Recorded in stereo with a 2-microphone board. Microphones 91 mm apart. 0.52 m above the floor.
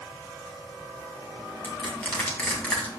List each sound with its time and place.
1.6 s crushing: 15° left (ahead or behind), 2.5 m